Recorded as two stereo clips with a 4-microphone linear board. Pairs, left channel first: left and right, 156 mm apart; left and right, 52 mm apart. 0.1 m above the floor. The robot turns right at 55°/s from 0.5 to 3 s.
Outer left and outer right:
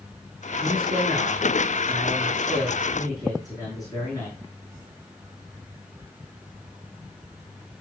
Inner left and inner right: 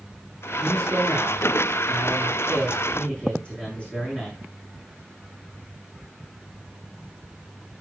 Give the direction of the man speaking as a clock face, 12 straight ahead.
4 o'clock.